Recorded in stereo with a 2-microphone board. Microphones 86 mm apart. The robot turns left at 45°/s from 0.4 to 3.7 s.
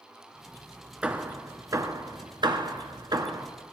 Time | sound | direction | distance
1.0 | hammering | 15° right (ahead or behind) | 1.1 m